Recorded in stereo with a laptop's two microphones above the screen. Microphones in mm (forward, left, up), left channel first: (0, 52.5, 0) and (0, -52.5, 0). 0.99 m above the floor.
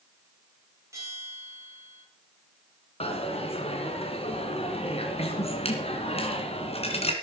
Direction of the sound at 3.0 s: 65° left (ahead or behind).